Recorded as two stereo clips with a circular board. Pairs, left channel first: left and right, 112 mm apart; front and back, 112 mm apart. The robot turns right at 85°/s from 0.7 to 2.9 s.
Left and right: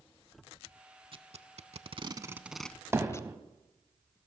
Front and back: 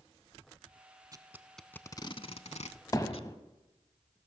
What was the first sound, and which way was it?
Tape being pulled, 125° right.